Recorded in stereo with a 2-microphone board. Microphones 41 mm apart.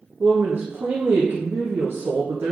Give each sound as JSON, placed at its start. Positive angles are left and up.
{"t": 0.2, "sound": "a woman speaking", "side_deg": -60, "distance_m": 0.8}